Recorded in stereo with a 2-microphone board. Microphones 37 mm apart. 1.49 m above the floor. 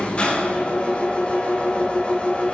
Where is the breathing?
No breathing in this recording.